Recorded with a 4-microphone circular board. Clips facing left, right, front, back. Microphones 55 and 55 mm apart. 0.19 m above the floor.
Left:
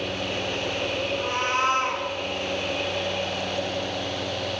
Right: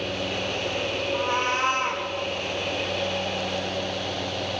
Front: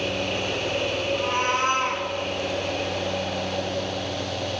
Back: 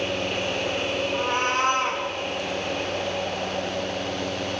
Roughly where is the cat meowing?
Behind right.